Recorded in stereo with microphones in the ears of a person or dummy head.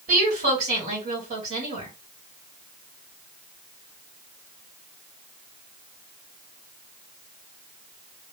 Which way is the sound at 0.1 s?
45° right (ahead or behind).